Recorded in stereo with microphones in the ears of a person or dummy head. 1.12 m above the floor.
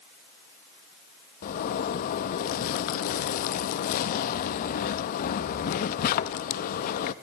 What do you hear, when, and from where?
1.4 s a zipper: 45° left (ahead or behind), 0.7 m